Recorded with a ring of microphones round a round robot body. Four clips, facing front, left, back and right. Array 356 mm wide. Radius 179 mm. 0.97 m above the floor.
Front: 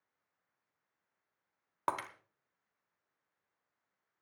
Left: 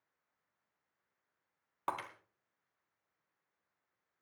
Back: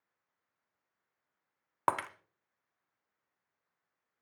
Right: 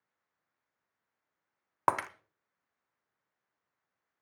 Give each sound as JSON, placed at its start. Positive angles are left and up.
{"t": 1.9, "sound": "breaking glass", "azimuth_deg": -115, "distance_m": 0.6}